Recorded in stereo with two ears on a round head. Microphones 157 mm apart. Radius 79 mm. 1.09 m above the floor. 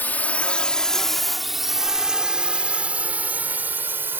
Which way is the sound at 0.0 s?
10° left (ahead or behind).